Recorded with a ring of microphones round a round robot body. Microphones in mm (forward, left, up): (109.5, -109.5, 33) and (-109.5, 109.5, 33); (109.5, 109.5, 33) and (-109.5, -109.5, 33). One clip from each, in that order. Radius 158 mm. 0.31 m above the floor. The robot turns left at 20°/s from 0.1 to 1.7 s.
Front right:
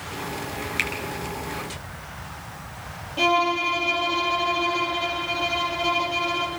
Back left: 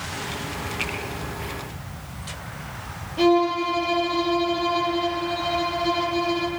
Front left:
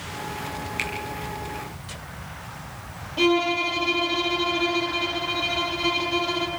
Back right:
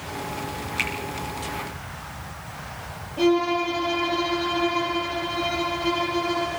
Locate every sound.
0.8 s a finger snap: 45° right, 6 m
3.2 s a violin: 10° left, 7.5 m